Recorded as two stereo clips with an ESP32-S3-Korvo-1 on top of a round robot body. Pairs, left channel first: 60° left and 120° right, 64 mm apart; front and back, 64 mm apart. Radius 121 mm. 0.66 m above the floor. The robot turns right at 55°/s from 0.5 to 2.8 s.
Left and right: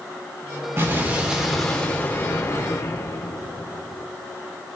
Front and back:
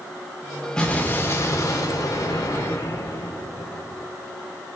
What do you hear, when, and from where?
0.8 s an explosion: 75° right, 3.5 m; by 4.1 s 35° left, 3.5 m